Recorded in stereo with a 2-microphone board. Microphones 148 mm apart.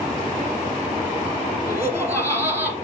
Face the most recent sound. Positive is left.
turn(degrees=-20)  # may be behind; listen again after turning